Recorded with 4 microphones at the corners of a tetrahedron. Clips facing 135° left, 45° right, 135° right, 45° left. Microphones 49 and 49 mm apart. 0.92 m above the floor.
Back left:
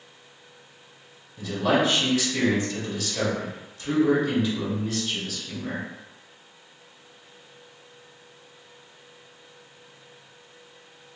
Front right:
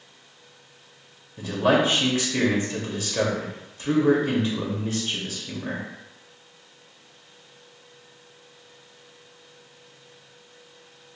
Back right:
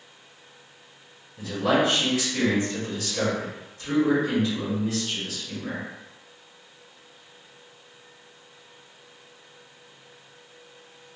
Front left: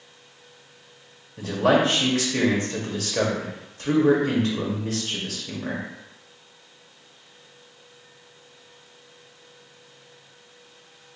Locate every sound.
1.4 s a man speaking: 10° left, 1.3 m